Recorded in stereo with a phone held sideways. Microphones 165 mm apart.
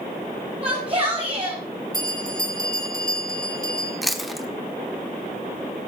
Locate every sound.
0.6 s a shout: 35° right (ahead or behind), 5.5 m
1.9 s a bell: 25° right (ahead or behind), 3 m
4.0 s chewing: centre (ahead or behind), 1.1 m